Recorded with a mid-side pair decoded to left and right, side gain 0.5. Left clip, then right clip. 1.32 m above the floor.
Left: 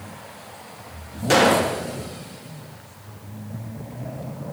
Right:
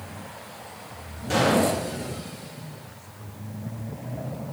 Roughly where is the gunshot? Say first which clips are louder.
Left 4 dB; ahead left.